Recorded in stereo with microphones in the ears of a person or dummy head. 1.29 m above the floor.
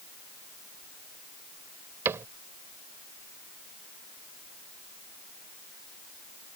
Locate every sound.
2.0 s a cupboard door: 15° right (ahead or behind)